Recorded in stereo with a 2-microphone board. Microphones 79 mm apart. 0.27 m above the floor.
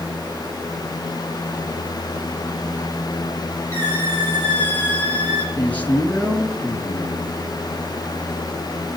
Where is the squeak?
25° left (ahead or behind), 7 m.